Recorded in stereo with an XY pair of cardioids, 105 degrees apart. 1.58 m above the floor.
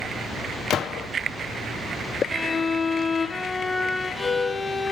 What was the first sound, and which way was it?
A gunshot, 60° left.